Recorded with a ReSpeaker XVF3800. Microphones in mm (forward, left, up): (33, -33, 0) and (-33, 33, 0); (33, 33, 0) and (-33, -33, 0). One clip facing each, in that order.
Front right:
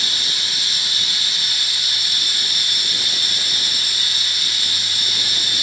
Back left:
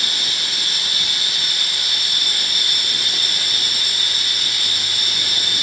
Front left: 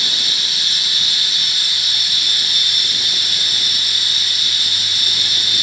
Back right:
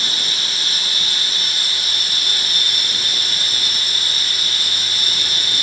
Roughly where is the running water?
Behind.